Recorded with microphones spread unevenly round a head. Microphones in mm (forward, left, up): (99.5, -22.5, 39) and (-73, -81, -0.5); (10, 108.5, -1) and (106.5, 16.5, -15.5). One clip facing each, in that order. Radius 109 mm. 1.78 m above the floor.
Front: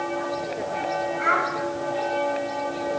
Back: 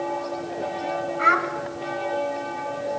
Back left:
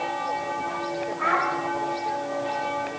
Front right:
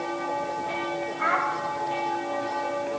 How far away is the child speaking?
About 1.9 m.